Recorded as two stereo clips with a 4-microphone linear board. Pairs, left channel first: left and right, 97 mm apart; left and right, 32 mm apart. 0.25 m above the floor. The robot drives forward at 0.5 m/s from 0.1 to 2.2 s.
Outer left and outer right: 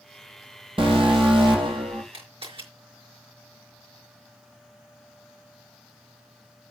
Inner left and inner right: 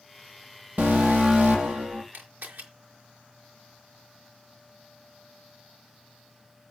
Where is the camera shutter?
65° right (ahead or behind), 5 m.